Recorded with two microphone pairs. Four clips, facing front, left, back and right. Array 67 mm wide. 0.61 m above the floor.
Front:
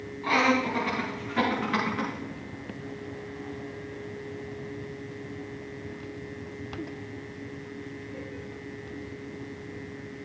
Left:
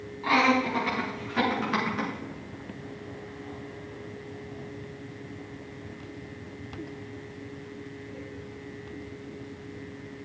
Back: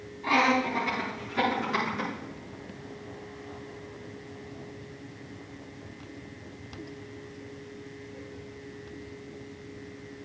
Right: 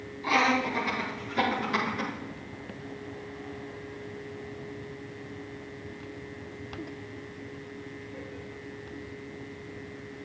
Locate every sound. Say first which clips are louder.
0.2 s laughter: left 2 dB, even; 70° left, 6.5 m; by 2.1 s 55° left, 6 m